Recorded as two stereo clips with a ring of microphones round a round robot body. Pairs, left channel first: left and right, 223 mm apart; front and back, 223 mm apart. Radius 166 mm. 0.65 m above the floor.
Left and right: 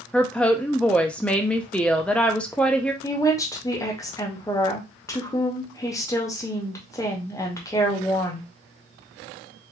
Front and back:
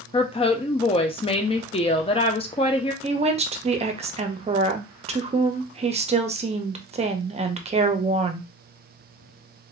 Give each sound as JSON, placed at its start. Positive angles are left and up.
{"t": 0.1, "sound": "a woman speaking", "azimuth_deg": 10, "distance_m": 0.5}
{"t": 3.0, "sound": "a woman speaking", "azimuth_deg": 150, "distance_m": 0.7}